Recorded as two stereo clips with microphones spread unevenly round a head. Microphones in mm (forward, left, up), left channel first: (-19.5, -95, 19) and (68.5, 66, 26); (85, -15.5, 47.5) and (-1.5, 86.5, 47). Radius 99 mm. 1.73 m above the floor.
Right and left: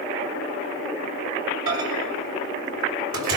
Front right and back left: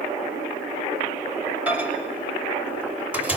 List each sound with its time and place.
1.7 s a microwave: 50° left, 5.5 m